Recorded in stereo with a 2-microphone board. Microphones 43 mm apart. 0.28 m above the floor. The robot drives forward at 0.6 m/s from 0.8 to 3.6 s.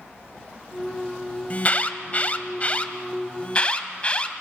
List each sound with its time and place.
1.5 s an alarm: 35° left (ahead or behind), 1.4 m; by 4.3 s 30° left (ahead or behind), 1.7 m